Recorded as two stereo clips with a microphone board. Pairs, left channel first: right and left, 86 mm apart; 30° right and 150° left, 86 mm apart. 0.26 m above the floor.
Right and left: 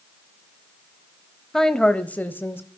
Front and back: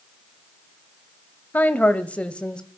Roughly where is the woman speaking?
Ahead.